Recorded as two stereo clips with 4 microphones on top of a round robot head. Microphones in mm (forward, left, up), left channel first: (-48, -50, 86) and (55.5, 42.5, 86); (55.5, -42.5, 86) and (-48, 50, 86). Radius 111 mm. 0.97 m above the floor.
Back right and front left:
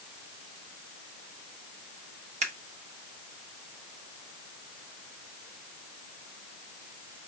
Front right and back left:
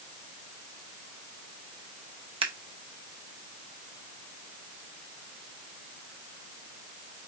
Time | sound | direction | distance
2.4 | scissors | 85° left | 1.0 m